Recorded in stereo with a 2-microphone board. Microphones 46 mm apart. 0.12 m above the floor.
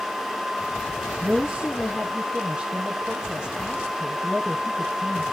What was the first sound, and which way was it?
A woman speaking, 15° right (ahead or behind).